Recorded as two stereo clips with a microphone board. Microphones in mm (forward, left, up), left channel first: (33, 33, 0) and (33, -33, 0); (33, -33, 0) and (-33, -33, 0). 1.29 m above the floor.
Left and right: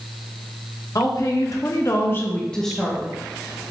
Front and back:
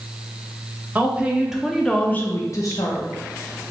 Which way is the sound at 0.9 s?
120° left.